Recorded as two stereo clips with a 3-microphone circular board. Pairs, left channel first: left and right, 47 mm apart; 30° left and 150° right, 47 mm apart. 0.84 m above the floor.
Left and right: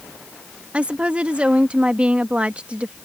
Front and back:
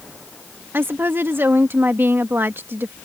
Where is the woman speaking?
150° right.